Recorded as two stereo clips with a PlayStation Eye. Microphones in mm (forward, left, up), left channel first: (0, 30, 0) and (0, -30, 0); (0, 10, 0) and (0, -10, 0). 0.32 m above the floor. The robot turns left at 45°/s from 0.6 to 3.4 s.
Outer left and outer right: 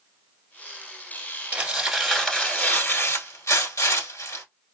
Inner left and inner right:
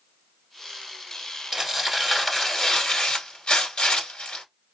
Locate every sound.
1.5 s tearing paper: 160° right, 1.1 m; by 4.5 s 115° left, 1.1 m